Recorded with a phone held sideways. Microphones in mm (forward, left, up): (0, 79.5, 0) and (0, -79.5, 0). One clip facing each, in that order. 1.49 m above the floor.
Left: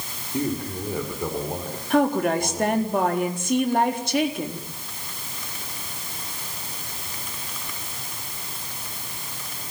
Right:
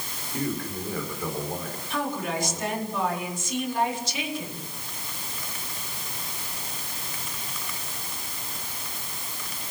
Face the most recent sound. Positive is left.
turn(degrees=55)  # may be behind; listen again after turning